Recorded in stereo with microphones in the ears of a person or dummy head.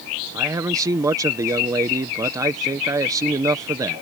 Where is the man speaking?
15° right (ahead or behind).